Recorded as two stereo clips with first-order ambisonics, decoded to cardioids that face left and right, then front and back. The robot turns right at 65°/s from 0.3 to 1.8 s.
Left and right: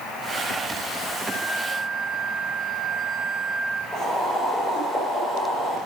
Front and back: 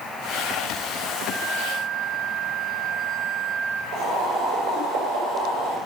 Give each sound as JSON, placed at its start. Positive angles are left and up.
{"t": 1.3, "sound": "a flute", "azimuth_deg": 110, "distance_m": 3.5}
{"t": 3.9, "sound": "boiling", "azimuth_deg": 165, "distance_m": 6.5}